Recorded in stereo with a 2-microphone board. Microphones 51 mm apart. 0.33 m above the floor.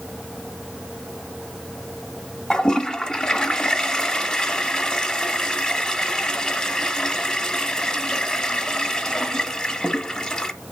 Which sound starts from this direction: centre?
A toilet flushing, at 2.5 s.